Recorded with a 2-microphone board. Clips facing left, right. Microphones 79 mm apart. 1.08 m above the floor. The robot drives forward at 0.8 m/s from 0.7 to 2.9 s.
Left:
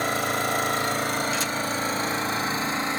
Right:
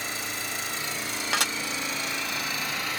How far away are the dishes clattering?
About 1.3 m.